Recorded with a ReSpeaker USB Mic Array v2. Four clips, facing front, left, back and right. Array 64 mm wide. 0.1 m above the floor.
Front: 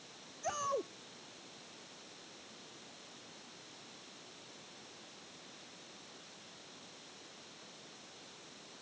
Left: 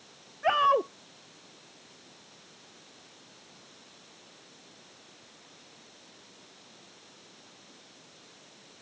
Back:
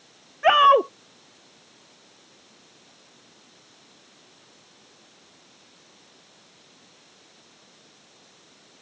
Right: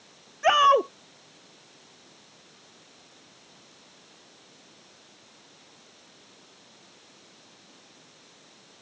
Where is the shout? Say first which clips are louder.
Right 5 dB, back 22 dB; 165° right.